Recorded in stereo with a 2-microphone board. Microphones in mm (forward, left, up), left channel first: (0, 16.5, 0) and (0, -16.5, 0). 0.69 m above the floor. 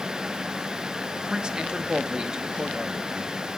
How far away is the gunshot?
No gunshot in this recording.